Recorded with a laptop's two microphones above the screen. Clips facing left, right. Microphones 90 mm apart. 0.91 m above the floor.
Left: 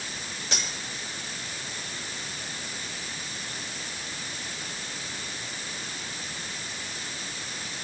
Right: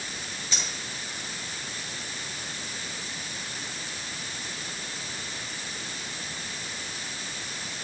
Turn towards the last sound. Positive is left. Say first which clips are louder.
# left 3 dB
turn(degrees=70)  # may be behind; listen again after turning